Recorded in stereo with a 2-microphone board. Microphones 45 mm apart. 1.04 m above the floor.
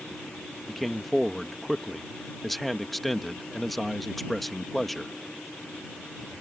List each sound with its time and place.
0.7 s a man speaking: centre (ahead or behind)